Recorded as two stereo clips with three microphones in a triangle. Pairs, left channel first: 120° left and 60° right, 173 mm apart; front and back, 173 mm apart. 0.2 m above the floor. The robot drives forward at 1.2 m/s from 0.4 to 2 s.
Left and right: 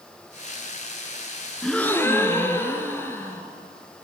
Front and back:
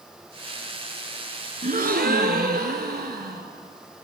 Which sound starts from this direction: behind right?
A gasp, at 1.6 s.